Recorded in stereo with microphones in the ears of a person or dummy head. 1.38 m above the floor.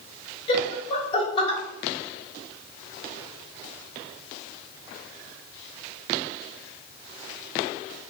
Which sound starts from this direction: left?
Laughter, at 0.5 s.